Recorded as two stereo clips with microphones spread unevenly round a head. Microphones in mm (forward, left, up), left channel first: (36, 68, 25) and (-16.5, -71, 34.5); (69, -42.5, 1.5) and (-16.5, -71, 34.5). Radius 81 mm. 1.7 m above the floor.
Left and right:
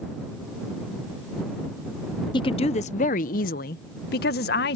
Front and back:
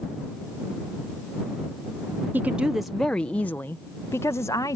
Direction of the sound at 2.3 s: 135° left.